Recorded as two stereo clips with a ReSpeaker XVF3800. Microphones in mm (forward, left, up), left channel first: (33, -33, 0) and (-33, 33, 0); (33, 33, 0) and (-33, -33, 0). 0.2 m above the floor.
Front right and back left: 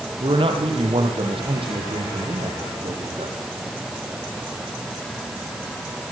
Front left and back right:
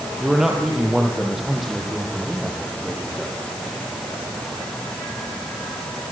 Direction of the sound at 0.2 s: 140° left.